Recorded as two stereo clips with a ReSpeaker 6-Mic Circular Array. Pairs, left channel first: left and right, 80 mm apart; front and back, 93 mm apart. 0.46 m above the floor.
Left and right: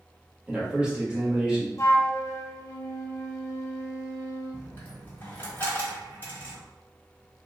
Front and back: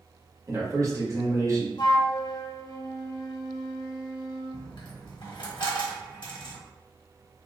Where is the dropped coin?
30° left, 1.2 m.